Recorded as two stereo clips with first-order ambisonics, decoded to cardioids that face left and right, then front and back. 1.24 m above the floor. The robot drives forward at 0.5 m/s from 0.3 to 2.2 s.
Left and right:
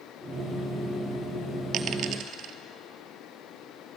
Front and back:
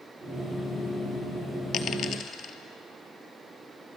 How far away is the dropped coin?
About 1.9 m.